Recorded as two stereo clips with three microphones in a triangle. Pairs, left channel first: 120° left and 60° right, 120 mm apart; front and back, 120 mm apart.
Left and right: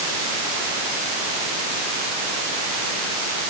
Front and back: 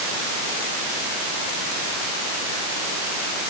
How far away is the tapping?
I don't hear tapping.